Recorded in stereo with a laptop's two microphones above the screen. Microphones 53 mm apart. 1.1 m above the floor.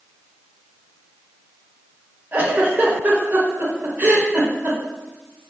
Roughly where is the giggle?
Right.